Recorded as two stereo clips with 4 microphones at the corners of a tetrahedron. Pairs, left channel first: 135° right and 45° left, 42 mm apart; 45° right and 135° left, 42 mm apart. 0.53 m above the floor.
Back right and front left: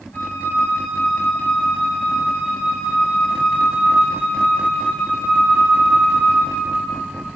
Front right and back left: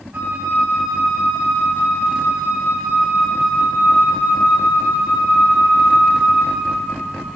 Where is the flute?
175° right, 4 m.